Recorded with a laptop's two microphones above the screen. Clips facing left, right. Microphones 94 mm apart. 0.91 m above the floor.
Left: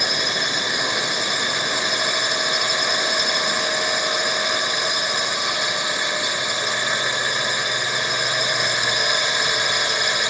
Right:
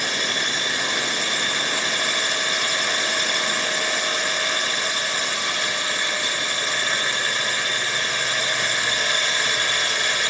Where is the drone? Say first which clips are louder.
Left 2 dB; 15° left (ahead or behind).